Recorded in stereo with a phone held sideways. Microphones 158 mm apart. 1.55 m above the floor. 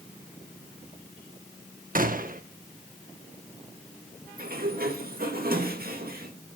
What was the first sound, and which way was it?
A gunshot, 60° right (ahead or behind).